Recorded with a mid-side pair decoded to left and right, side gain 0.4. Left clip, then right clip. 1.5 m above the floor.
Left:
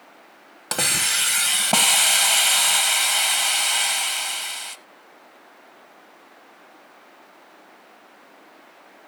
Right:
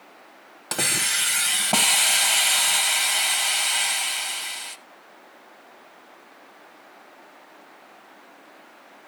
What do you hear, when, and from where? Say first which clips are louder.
0.7 s a hiss: left 2 dB; 30° left, 0.9 m